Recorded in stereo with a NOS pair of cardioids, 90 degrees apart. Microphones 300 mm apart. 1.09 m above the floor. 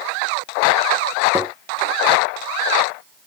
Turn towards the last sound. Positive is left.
turn(degrees=-5)